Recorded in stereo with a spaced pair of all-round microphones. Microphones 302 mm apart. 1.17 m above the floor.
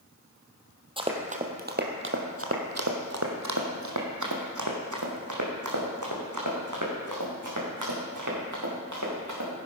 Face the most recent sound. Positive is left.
turn(degrees=-60)  # may be behind; listen again after turning